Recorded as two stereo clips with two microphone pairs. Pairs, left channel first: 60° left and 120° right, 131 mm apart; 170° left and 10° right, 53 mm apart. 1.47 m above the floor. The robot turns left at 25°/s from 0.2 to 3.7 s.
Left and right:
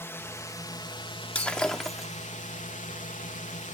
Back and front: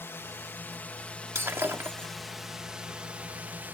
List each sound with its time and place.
0.0 s a drone: 130° left; by 3.8 s 45° left
1.4 s breaking glass: 15° right; by 2.1 s 30° right